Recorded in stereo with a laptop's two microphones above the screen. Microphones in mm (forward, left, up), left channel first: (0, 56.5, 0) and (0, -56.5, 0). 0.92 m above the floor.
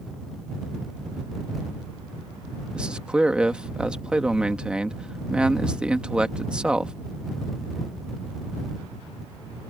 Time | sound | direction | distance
2.7 | a man speaking | 10° right (ahead or behind) | ?